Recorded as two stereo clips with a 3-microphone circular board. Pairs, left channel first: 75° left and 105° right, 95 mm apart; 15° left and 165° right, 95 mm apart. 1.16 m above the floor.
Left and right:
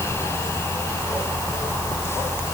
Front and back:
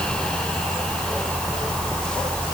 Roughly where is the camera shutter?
No camera shutter in this recording.